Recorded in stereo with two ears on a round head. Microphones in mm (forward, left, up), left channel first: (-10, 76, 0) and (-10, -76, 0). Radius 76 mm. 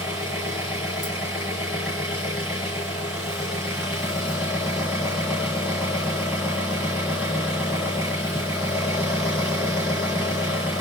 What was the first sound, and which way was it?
An engine running, 10° right (ahead or behind).